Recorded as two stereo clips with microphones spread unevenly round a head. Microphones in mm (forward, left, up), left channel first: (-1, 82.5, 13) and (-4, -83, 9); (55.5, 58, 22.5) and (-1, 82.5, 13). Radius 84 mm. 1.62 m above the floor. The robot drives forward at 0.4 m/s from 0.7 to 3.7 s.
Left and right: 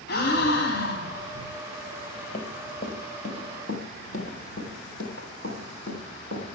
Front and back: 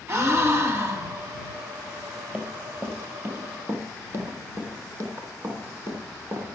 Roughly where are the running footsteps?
Left.